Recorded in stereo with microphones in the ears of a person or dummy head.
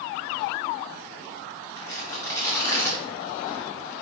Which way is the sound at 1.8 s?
20° left (ahead or behind).